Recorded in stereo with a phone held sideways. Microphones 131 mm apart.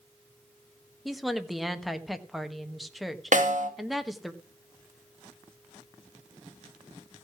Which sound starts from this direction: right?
A snare drum, at 3.3 s.